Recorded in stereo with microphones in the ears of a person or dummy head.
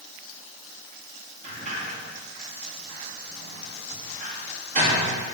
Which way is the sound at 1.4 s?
45° right (ahead or behind).